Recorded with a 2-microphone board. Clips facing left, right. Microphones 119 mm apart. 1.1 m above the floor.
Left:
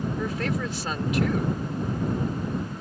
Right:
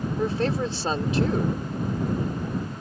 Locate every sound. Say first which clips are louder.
0.2 s a woman speaking: right 7 dB; 35° right (ahead or behind)